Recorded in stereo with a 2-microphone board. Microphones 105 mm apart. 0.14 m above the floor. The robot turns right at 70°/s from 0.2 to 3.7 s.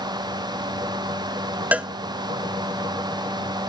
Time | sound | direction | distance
1.7 | a cowbell | 15° right (ahead or behind) | ?